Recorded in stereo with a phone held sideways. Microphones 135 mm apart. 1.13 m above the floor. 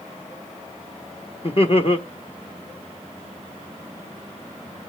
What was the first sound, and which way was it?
Laughter, 45° left (ahead or behind).